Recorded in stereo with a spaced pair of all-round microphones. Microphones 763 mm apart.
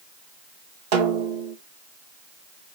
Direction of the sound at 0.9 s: 70° right (ahead or behind).